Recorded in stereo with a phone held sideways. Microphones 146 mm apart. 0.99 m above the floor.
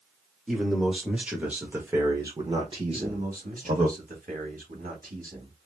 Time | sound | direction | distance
0.5 | a man speaking | centre (ahead or behind) | 1.9 m
2.9 | a man speaking | 70° right (ahead or behind) | 1.8 m